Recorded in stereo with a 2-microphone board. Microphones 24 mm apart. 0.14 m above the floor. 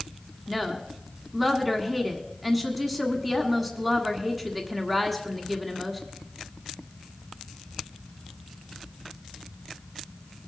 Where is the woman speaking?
5° right (ahead or behind), 1.5 m.